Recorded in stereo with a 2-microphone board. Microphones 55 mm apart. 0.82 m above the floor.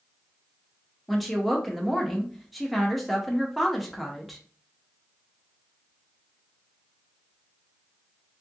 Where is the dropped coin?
I don't hear a dropped coin.